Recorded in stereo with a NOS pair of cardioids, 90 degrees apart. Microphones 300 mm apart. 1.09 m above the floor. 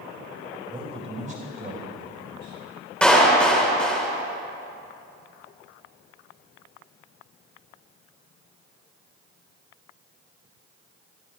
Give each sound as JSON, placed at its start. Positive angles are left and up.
{"t": 0.7, "sound": "a man speaking", "azimuth_deg": -15, "distance_m": 4.5}
{"t": 3.0, "sound": "a clap", "azimuth_deg": 5, "distance_m": 3.5}